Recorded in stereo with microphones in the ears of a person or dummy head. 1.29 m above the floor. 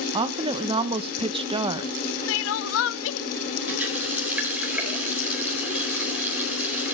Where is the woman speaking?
30° right (ahead or behind), 1.2 m.